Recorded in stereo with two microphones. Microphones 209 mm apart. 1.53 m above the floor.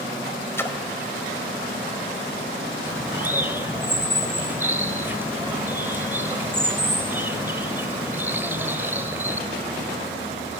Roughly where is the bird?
Centre.